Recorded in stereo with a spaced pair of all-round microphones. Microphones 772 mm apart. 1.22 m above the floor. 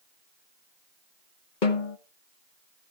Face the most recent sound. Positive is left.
turn(degrees=75)  # may be behind; listen again after turning